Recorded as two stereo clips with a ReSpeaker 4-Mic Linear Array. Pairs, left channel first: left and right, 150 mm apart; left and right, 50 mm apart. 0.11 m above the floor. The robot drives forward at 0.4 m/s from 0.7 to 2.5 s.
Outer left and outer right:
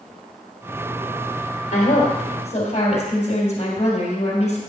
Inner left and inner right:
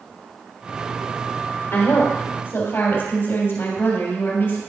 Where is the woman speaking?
50° left (ahead or behind), 2.5 m; by 4.6 s 45° left (ahead or behind), 3 m.